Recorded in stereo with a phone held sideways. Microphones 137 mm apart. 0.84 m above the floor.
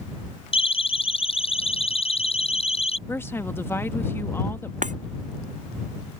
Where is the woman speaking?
15° left (ahead or behind).